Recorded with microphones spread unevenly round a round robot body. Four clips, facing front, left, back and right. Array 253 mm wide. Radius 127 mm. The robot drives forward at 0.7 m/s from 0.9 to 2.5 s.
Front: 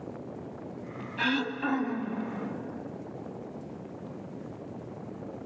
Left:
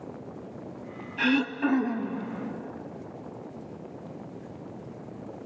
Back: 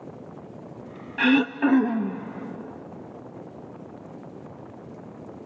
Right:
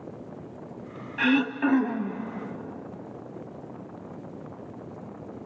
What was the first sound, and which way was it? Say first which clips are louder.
Throat clearing: right 2 dB, back 9 dB; straight behind.